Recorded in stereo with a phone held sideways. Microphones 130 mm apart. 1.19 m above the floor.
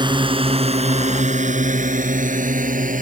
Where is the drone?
35° right (ahead or behind); by 3.0 s 90° right.